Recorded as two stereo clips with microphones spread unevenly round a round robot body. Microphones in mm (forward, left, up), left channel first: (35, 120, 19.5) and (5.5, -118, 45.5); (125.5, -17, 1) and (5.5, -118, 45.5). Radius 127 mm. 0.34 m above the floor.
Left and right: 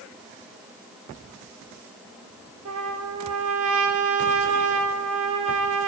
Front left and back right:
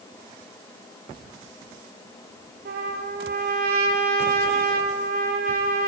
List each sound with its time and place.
2.6 s a trumpet: 130° right, 3 m